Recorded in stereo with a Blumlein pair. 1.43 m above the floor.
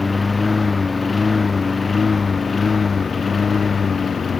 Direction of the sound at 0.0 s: 10° left.